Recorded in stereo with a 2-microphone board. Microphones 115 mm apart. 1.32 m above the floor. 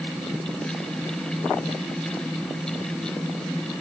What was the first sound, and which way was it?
Only background noise.